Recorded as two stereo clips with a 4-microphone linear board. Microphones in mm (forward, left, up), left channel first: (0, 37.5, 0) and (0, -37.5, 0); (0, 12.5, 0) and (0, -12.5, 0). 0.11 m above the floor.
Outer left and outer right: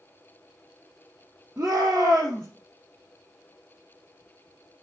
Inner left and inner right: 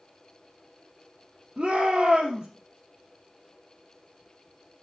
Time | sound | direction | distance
1.6 | a shout | 30° right (ahead or behind) | 3.5 m